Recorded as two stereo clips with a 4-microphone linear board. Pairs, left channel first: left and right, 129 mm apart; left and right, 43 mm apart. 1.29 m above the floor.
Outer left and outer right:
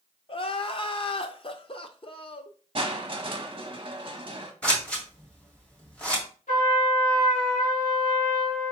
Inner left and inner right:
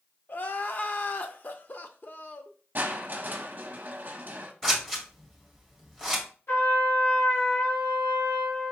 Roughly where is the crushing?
Right.